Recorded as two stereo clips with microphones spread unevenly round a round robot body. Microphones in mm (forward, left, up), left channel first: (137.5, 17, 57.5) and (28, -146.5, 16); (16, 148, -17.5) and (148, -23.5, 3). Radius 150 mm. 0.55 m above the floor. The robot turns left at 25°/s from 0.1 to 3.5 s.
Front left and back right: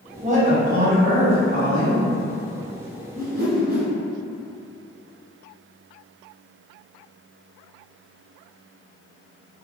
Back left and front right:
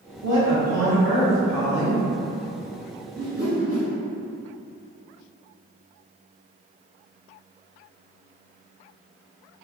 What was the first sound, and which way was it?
A woman speaking, 90° right.